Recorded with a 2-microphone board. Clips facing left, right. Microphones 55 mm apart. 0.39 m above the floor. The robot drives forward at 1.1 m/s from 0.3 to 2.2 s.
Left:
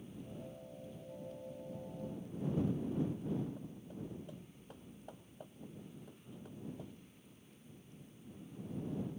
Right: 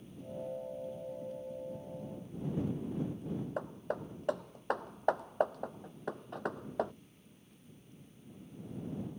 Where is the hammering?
70° right (ahead or behind).